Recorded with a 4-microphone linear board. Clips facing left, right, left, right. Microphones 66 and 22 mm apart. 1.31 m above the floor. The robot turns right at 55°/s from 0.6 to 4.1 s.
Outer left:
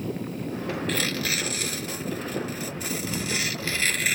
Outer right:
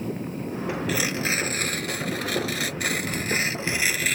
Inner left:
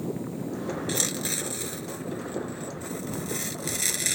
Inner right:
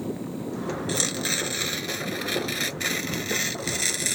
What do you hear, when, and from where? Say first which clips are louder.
0.9 s tearing paper: outer right 3 dB, inner right 4 dB; 175° right; by 4.2 s 5° left